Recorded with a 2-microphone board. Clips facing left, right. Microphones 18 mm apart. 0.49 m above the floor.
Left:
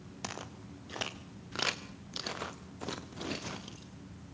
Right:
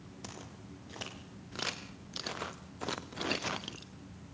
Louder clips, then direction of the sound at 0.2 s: Left 6 dB; 50° left (ahead or behind).